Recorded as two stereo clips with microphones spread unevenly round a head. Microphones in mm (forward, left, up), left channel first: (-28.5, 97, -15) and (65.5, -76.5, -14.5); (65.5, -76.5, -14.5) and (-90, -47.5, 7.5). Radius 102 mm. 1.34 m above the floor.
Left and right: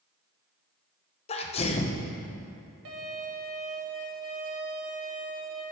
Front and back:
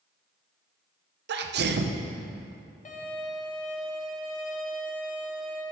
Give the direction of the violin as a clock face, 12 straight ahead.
1 o'clock.